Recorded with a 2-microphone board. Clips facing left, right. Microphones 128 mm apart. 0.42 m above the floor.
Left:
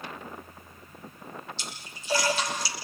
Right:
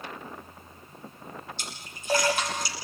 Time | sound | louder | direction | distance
1.6 | a splash | even | 50° right (ahead or behind) | 6.5 m